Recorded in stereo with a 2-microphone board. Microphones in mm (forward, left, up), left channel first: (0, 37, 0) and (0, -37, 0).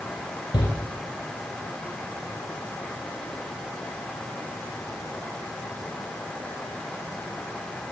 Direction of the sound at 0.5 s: 75° left (ahead or behind).